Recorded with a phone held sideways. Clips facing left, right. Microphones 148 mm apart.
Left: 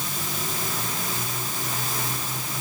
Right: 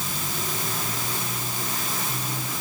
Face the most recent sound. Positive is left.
No sound to turn to.